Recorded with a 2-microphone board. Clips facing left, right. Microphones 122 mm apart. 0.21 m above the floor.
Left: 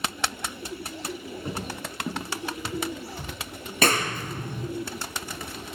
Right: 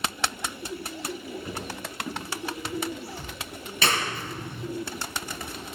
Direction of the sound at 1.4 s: 25° left (ahead or behind).